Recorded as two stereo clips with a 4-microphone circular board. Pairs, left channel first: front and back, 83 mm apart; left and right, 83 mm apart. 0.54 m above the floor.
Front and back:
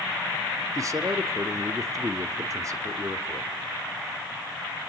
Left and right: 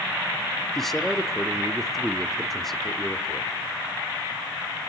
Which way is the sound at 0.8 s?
175° left.